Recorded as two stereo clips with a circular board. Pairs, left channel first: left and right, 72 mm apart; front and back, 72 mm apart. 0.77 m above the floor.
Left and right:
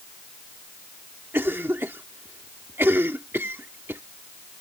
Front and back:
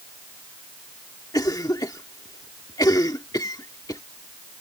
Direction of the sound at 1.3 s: 30° right.